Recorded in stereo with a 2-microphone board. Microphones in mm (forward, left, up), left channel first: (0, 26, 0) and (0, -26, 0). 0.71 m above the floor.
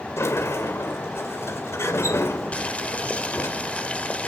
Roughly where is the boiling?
Left.